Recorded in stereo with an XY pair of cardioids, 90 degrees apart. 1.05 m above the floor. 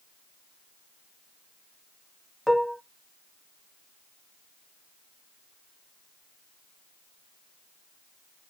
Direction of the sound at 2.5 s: Straight ahead.